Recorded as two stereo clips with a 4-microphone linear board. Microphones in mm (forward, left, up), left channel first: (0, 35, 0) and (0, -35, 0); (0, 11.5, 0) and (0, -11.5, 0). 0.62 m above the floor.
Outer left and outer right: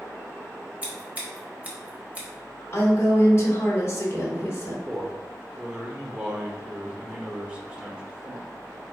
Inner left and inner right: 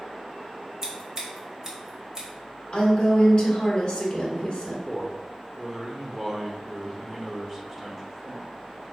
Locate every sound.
0.8 s scissors: 20° right (ahead or behind), 0.9 m
2.7 s a woman speaking: 40° left (ahead or behind), 1.1 m
4.9 s a man speaking: 15° right (ahead or behind), 0.7 m